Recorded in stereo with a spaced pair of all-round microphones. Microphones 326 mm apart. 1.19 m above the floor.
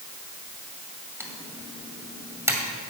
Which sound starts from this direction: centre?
Typing on a keyboard, at 1.2 s.